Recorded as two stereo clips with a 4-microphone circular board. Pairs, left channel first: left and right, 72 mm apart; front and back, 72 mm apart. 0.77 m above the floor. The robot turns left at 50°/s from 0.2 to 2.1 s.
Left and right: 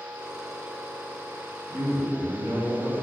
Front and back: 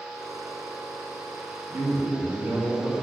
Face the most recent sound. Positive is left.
turn(degrees=-150)